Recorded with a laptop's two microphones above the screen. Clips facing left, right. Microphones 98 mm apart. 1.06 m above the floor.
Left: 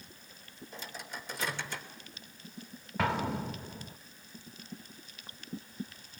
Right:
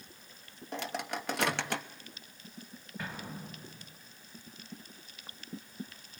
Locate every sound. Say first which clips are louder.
0.7 s a microwave: right 8 dB; 60° right (ahead or behind), 1.2 m
3.0 s an explosion: left 12 dB; 70° left (ahead or behind), 0.9 m